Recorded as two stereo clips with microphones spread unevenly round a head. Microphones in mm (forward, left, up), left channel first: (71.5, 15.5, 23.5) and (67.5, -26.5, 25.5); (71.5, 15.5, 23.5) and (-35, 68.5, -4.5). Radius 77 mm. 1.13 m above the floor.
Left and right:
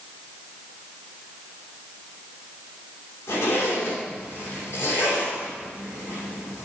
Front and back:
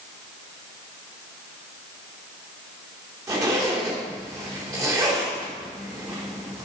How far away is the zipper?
About 2.5 m.